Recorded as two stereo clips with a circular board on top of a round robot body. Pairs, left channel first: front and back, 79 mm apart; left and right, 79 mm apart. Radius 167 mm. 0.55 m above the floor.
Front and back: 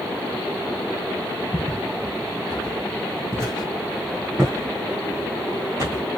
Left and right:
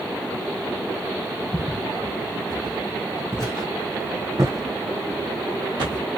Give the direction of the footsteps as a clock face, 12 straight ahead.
10 o'clock.